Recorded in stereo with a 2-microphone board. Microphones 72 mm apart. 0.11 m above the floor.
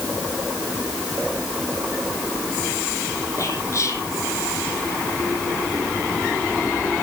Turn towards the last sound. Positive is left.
turn(degrees=50)  # may be behind; listen again after turning